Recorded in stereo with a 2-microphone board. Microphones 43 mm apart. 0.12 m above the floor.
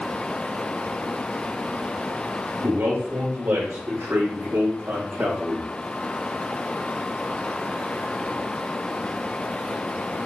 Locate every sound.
2.6 s a man speaking: 75° right (ahead or behind), 4.5 m; by 5.7 s 45° right (ahead or behind), 6 m